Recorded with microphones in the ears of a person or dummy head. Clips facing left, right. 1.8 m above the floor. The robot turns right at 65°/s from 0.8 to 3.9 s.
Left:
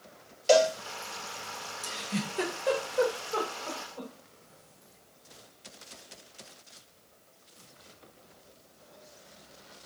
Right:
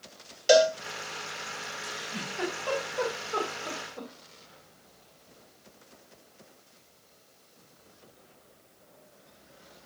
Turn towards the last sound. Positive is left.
turn(degrees=-25)  # may be behind; listen again after turning